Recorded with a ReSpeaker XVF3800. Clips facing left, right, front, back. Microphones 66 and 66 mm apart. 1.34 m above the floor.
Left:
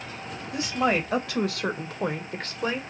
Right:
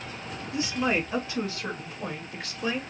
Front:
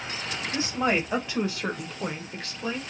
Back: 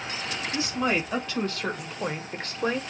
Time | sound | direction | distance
0.5 | a woman speaking | 60° left | 1.5 m